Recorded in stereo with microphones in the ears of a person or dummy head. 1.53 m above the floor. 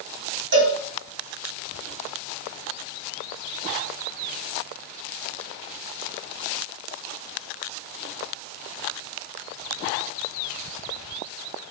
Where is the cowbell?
70° right (ahead or behind), 1.0 m.